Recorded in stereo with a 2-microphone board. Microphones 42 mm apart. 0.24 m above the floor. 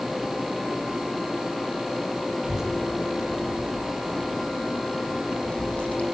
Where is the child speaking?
15° right (ahead or behind), 4.5 m; by 6.0 s 30° left (ahead or behind), 8 m.